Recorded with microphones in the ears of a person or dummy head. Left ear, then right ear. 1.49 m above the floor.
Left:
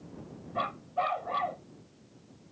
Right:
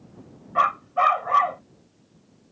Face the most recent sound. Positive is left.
turn(degrees=-55)  # may be behind; listen again after turning